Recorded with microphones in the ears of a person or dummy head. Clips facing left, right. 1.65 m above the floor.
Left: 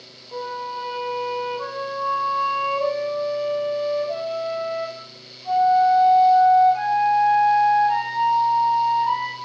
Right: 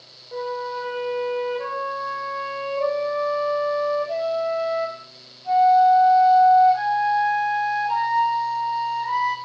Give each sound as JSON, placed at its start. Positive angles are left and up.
{"t": 0.3, "sound": "a flute", "side_deg": -15, "distance_m": 6.5}